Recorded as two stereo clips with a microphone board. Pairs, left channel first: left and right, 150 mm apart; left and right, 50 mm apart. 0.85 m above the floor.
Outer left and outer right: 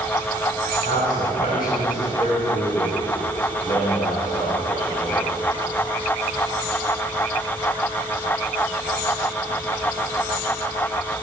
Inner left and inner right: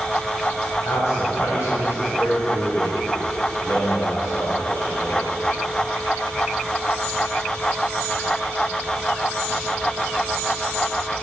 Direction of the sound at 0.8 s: 70° left (ahead or behind).